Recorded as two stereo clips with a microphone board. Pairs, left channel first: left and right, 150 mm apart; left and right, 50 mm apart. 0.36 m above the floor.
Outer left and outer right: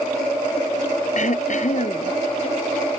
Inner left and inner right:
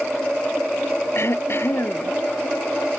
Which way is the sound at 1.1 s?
55° left (ahead or behind).